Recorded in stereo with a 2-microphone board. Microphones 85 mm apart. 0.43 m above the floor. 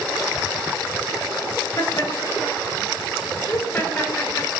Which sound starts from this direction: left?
Laughter, at 1.8 s.